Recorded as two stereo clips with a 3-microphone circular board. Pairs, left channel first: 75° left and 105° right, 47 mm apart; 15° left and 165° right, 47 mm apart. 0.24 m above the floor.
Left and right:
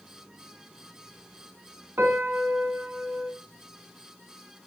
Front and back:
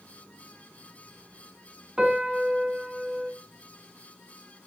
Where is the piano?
90° right, 1.6 m.